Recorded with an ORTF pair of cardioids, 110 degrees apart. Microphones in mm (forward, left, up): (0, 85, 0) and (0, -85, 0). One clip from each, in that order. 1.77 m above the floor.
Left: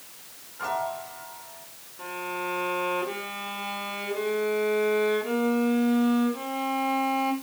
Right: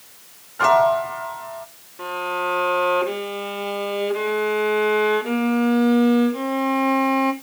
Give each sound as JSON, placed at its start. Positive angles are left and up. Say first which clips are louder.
{"t": 0.6, "sound": "a piano", "louder": "right 14 dB", "azimuth_deg": -65, "distance_m": 0.7}
{"t": 2.0, "sound": "a violin", "louder": "right 8 dB", "azimuth_deg": -45, "distance_m": 2.5}